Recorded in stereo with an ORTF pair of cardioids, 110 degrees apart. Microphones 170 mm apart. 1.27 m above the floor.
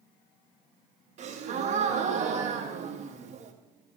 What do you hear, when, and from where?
1.2 s a gasp: 45° right, 1.4 m